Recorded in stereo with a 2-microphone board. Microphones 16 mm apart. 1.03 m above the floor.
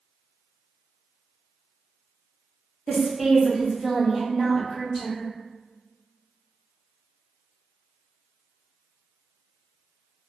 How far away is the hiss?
No hiss in this recording.